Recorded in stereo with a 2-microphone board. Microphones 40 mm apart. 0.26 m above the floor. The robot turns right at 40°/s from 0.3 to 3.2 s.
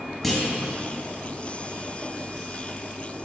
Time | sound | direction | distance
0.2 | a clunk | centre (ahead or behind) | 1.1 m